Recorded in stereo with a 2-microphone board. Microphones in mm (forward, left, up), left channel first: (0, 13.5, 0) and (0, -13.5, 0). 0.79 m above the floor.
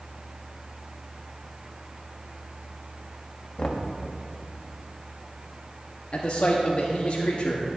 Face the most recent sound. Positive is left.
turn(degrees=50)  # may be behind; listen again after turning